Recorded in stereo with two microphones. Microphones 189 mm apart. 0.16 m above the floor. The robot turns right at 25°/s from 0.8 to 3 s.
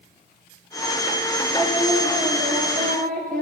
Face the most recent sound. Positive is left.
turn(degrees=-135)